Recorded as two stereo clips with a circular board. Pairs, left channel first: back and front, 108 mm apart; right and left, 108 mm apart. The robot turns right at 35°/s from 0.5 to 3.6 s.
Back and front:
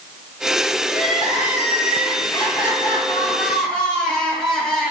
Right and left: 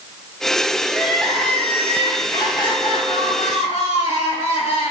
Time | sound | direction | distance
0.9 | crying | 170° left | 1.8 m